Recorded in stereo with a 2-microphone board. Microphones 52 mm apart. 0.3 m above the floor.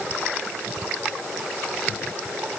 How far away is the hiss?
No hiss in this recording.